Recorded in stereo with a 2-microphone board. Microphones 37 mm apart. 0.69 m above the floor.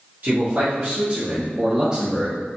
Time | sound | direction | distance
0.2 | a man speaking | 60° right (ahead or behind) | 1.5 m